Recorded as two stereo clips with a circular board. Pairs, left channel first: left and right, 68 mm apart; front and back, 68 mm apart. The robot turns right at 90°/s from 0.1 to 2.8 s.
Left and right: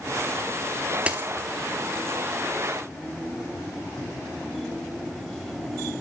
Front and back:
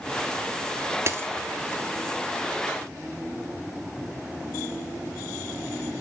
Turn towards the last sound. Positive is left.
turn(degrees=0)